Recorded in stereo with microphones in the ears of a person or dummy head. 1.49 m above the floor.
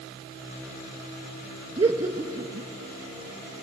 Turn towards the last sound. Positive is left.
turn(degrees=-20)  # may be behind; listen again after turning